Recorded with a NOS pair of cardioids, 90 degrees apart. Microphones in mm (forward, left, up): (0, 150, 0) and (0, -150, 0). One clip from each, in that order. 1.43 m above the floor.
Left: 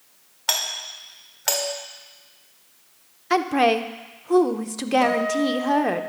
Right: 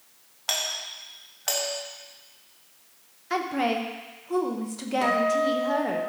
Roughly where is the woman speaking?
Ahead left.